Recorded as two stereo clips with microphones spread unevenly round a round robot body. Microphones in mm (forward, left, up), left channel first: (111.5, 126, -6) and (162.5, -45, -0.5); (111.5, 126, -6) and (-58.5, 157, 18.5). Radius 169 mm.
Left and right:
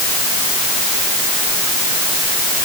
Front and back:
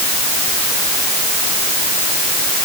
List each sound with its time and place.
Only background noise.